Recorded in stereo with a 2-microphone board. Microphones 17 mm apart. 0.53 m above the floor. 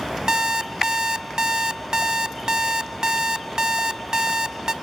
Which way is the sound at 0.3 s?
45° right (ahead or behind).